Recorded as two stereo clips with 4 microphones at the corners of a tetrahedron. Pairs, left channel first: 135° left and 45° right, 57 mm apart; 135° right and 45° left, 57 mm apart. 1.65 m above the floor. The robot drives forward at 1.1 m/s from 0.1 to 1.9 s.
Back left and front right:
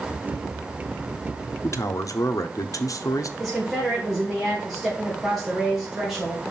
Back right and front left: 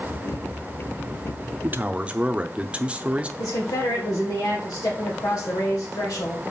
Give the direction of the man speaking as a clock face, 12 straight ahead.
9 o'clock.